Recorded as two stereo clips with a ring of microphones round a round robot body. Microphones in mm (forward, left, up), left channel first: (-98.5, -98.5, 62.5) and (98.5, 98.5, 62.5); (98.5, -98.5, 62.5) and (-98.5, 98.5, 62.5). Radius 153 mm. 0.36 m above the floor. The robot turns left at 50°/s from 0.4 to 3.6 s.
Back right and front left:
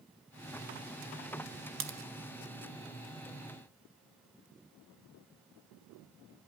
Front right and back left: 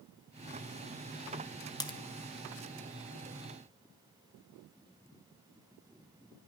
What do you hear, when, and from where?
1.8 s a crack: 25° left, 1.5 m; by 2.0 s 15° left, 1.5 m